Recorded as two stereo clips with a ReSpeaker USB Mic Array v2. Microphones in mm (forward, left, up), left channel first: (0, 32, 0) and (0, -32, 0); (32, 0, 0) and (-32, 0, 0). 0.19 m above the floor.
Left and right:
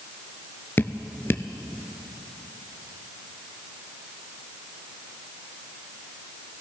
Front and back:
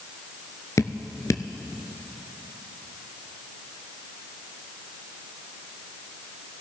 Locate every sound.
0.8 s dripping: 35° left, 0.8 m